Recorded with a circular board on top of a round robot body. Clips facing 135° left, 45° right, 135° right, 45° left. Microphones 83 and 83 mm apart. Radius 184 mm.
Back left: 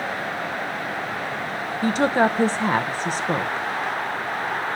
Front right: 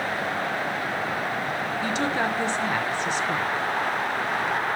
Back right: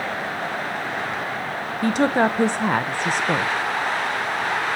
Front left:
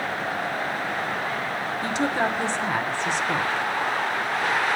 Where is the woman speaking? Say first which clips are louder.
Back left 8 dB, back right 7 dB; 175° right, 0.6 m.